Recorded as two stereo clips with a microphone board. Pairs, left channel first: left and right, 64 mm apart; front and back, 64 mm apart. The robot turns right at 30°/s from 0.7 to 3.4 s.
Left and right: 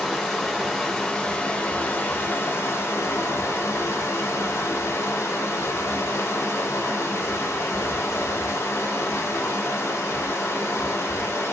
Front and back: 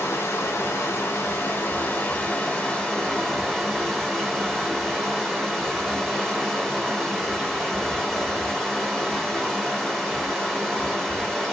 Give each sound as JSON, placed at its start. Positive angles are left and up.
{"t": 0.0, "sound": "running water", "azimuth_deg": 0, "distance_m": 1.1}